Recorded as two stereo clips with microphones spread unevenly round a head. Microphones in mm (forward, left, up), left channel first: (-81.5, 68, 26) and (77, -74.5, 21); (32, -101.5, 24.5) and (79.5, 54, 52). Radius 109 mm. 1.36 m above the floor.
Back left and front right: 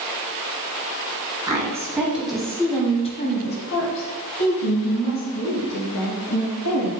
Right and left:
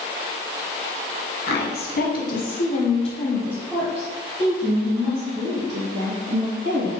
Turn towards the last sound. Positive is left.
turn(degrees=110)